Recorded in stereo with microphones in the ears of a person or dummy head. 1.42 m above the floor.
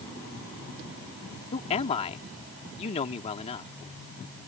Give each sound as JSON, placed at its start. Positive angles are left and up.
{"t": 1.5, "sound": "a man speaking", "side_deg": 30}